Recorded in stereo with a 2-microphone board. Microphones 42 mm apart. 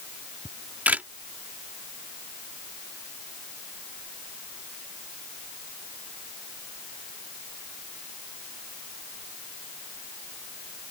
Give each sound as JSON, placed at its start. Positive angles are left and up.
{"t": 0.5, "sound": "a camera shutter", "side_deg": -45}